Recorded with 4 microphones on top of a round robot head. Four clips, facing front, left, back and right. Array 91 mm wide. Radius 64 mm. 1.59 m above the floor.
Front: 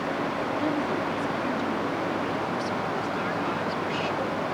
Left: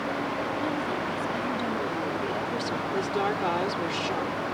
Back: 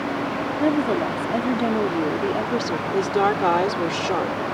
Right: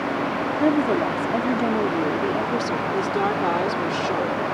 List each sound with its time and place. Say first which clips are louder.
0.6 s a woman speaking: right 9 dB, back 9 dB; 125° right; by 2.8 s 160° right
2.9 s a woman speaking: right 4 dB, back 8 dB; 165° right